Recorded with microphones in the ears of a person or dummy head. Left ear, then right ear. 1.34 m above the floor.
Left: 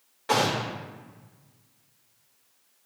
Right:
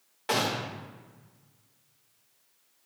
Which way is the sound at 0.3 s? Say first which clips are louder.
Left 4 dB; 20° right (ahead or behind).